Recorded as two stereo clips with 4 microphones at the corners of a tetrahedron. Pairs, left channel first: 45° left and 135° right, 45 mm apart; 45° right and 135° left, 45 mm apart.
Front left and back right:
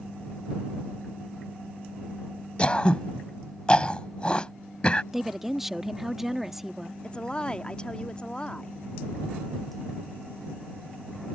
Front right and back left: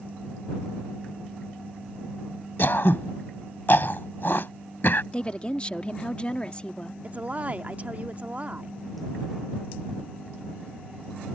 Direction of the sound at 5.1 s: 60° right.